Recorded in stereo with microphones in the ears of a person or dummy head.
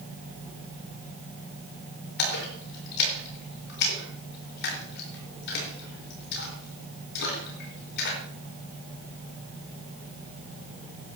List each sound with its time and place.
2.2 s a splash: 60° left (ahead or behind), 4 m